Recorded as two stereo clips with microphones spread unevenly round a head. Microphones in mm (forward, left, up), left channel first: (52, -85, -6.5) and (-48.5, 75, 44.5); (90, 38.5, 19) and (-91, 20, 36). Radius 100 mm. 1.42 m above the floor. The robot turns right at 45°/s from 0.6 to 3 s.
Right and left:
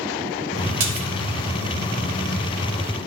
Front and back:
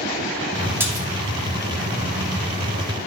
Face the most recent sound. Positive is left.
turn(degrees=-155)